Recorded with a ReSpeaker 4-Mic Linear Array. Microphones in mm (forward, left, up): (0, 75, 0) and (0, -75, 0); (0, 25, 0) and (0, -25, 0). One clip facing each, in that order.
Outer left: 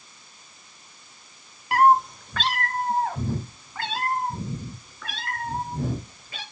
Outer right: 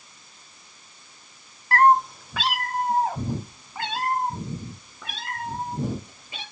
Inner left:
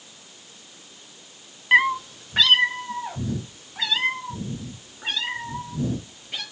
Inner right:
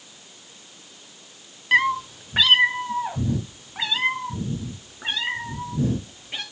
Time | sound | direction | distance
1.7 | a cat meowing | 15° left (ahead or behind) | 0.5 m